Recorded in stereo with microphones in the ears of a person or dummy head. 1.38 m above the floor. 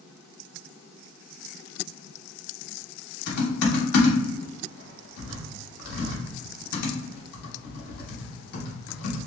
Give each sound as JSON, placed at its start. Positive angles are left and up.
{"t": 3.3, "sound": "typing on a keyboard", "side_deg": 65, "distance_m": 1.3}